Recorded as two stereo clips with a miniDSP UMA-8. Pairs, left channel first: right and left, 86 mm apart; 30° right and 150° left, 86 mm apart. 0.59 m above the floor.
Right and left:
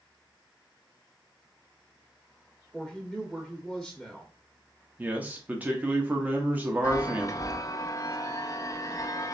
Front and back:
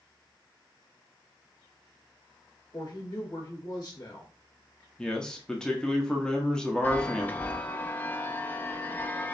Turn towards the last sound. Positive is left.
turn(degrees=-85)